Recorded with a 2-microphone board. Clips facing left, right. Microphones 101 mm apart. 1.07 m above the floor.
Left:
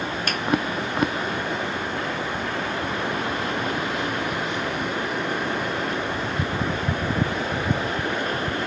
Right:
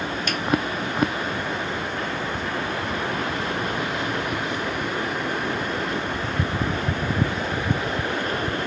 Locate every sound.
0.3 s a finger snap: 50° left (ahead or behind), 0.7 m